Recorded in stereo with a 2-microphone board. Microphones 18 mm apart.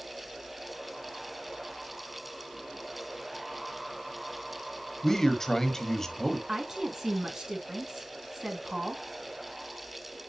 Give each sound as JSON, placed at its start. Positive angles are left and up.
{"t": 5.0, "sound": "a man speaking", "side_deg": 20, "distance_m": 1.2}
{"t": 6.5, "sound": "a woman speaking", "side_deg": -35, "distance_m": 2.5}